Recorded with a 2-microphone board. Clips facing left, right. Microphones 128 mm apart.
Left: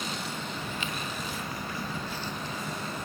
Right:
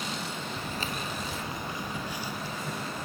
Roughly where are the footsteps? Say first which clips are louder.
Right 1 dB; right.